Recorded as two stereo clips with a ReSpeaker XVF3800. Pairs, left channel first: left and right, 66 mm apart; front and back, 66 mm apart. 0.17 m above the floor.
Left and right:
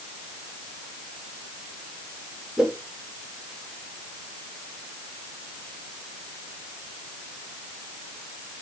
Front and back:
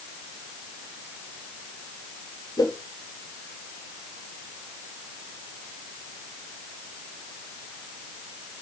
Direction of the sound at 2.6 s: Straight ahead.